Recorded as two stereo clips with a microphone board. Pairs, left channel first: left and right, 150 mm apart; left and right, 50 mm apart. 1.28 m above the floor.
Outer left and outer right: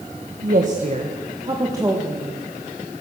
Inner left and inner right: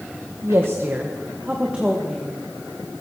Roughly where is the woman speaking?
Right.